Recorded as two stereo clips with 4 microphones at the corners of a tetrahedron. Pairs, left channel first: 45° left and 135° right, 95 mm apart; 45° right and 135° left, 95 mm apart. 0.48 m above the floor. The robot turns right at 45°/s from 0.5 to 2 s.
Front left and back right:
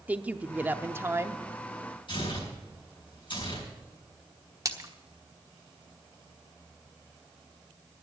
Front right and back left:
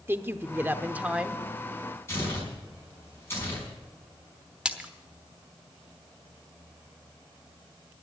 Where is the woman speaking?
170° left, 0.7 m; by 1.4 s 150° right, 0.7 m.